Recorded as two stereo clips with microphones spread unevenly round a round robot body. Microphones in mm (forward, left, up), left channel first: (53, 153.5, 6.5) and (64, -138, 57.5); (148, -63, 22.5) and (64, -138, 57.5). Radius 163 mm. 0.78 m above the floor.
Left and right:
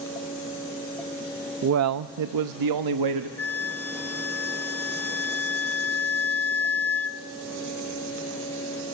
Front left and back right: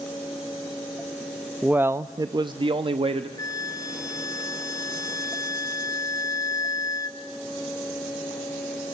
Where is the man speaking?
40° right, 0.6 m; by 3.3 s 90° right, 1.2 m.